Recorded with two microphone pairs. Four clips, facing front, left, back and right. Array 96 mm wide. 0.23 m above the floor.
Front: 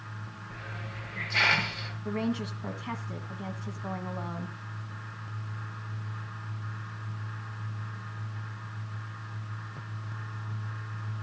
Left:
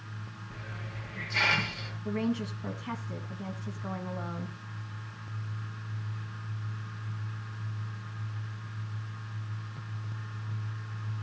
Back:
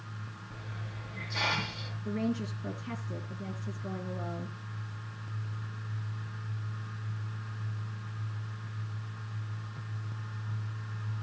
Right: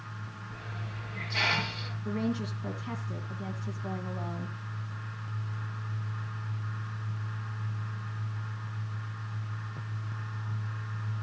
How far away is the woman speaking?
About 2 m.